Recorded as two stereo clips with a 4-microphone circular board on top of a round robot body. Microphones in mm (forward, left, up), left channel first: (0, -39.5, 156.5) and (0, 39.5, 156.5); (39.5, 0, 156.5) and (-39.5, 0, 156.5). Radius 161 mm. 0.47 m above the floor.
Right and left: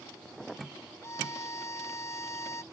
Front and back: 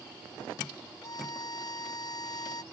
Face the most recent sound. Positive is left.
turn(degrees=-35)